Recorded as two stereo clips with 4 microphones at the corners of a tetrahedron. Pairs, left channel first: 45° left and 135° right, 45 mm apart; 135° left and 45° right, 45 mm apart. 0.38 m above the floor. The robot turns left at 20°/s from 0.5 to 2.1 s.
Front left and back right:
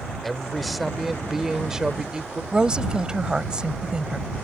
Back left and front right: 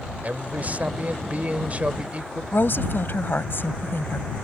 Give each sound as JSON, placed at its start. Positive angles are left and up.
{"t": 0.2, "sound": "a man speaking", "azimuth_deg": -40}
{"t": 2.5, "sound": "a woman speaking", "azimuth_deg": 155}